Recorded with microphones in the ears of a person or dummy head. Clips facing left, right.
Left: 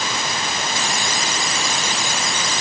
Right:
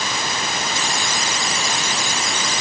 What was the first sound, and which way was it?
Only background noise.